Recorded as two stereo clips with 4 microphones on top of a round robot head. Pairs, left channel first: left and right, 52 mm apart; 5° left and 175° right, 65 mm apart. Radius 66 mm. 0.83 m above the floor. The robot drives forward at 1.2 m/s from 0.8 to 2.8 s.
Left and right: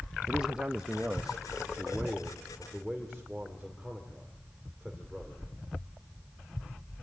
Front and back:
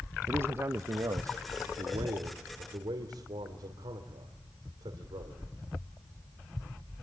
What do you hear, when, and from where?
0.3 s a man speaking: 155° right, 0.8 m; by 5.4 s 175° right, 3 m